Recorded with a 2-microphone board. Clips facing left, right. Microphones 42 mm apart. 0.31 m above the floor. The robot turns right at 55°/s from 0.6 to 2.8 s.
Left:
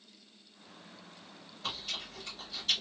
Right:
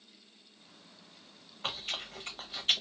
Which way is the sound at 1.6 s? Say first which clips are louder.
Right 2 dB; 40° right (ahead or behind).